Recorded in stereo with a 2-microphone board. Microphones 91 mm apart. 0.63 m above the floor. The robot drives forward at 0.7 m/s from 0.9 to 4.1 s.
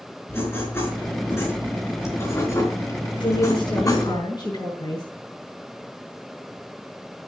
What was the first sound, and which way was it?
Writing, 30° left (ahead or behind).